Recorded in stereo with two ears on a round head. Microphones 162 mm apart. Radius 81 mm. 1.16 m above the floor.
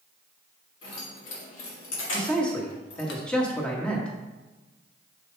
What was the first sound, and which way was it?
Keys jangling, 90° left.